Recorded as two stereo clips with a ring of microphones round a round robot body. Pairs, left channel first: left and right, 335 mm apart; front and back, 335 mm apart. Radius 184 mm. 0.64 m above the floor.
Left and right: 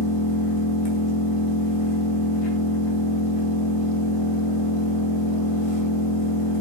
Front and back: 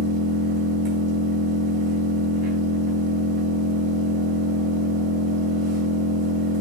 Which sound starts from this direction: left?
An engine running, at 0.0 s.